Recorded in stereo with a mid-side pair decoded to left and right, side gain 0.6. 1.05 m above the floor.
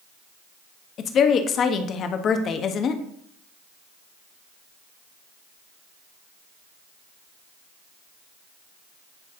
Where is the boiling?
No boiling in this recording.